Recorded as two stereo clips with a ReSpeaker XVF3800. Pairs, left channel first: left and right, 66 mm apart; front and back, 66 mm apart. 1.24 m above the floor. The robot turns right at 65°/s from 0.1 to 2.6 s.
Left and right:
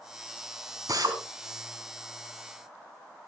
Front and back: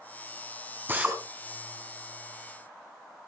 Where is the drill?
120° right, 4.5 m; by 1.2 s 105° right, 4.5 m.